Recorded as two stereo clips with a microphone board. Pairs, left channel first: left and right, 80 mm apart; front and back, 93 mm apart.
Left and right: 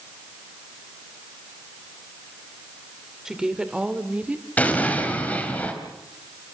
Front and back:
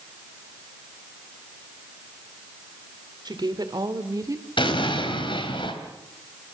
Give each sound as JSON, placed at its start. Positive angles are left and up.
{"t": 3.2, "sound": "a woman speaking", "azimuth_deg": -170, "distance_m": 1.8}
{"t": 4.6, "sound": "an explosion", "azimuth_deg": 20, "distance_m": 3.0}